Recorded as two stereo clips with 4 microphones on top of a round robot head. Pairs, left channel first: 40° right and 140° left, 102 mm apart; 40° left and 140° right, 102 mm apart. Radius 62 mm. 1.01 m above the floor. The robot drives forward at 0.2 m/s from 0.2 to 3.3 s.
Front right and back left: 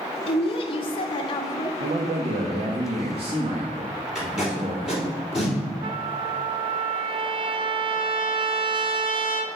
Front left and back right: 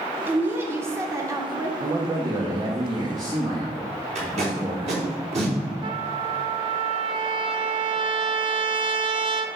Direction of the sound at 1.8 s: 165° left.